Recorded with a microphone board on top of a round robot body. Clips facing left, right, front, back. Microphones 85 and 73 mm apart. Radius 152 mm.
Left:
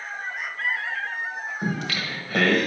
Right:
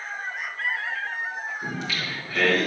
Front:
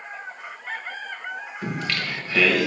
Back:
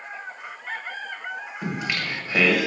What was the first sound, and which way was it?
Singing, 110° left.